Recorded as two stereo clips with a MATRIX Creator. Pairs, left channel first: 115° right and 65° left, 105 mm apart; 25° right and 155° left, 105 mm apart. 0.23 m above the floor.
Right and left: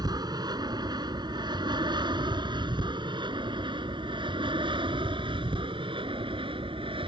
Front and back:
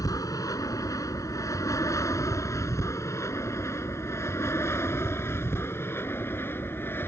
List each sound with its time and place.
0.0 s an aircraft: 25° left; by 7.1 s 45° left